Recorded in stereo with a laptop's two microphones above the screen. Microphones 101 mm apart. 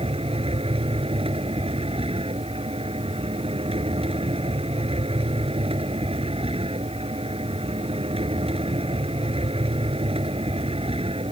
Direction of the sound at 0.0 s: 75° right (ahead or behind).